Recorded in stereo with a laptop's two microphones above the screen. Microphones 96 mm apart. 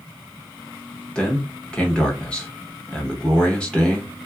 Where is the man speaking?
10° left (ahead or behind), 0.7 m.